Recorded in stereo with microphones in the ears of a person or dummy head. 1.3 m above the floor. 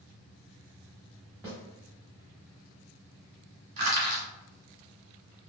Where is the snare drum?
10° right (ahead or behind), 1.0 m.